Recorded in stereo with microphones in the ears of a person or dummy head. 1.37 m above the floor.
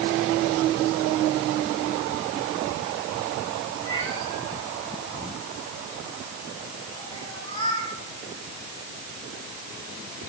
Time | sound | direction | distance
3.9 | a cat meowing | 30° left (ahead or behind) | 7 m